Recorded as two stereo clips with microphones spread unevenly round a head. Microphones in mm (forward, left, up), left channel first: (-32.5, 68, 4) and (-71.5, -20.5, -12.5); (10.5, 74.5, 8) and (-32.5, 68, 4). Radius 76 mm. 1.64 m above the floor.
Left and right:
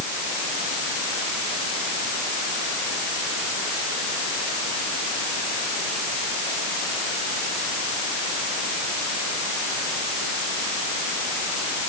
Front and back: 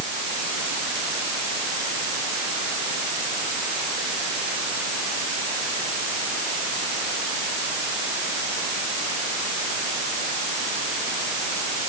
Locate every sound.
Only background noise.